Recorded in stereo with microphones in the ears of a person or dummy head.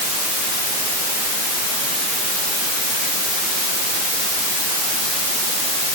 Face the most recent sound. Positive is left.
No sound to turn to.